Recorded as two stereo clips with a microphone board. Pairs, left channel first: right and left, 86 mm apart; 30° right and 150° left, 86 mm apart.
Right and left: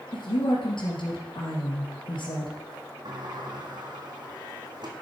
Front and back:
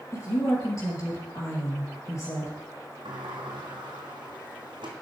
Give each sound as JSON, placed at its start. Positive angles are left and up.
{"t": 0.1, "sound": "a woman speaking", "azimuth_deg": -85, "distance_m": 3.5}
{"t": 3.0, "sound": "a sliding door", "azimuth_deg": 125, "distance_m": 1.9}